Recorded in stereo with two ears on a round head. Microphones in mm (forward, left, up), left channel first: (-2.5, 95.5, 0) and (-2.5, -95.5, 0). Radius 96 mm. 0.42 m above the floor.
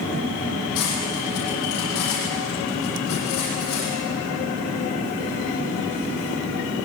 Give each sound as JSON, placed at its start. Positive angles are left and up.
{"t": 0.8, "sound": "cutlery clinking", "side_deg": 80, "distance_m": 10.0}